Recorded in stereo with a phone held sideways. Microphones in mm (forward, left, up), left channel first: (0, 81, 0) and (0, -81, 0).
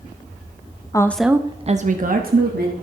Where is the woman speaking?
20° left (ahead or behind), 0.6 m; by 2.7 s 75° right (ahead or behind), 1.4 m.